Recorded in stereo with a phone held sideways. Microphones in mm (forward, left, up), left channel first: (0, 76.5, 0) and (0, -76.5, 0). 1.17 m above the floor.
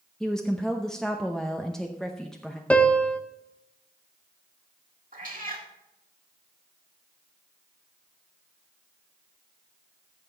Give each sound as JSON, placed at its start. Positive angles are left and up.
{"t": 0.2, "sound": "a woman speaking", "side_deg": 5, "distance_m": 0.7}
{"t": 2.7, "sound": "a piano", "side_deg": 10, "distance_m": 0.8}
{"t": 5.1, "sound": "a cat meowing", "side_deg": -65, "distance_m": 1.6}